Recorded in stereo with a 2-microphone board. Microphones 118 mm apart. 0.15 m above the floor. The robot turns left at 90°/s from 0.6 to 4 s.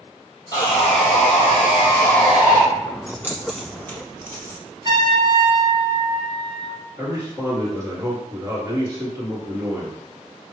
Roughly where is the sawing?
Behind left.